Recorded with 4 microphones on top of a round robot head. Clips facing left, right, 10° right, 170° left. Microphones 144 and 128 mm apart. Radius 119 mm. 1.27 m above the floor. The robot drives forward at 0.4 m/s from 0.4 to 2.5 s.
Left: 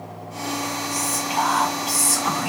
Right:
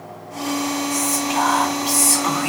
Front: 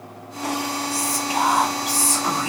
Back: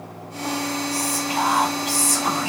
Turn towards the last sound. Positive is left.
turn(degrees=-75)